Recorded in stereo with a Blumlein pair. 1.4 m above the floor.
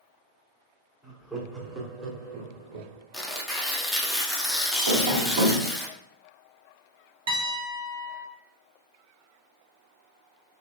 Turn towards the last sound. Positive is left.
turn(degrees=-60)